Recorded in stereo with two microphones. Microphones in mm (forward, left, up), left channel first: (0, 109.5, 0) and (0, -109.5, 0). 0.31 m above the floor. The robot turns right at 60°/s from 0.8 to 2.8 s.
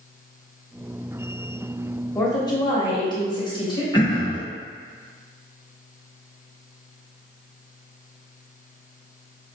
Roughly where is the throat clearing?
Left.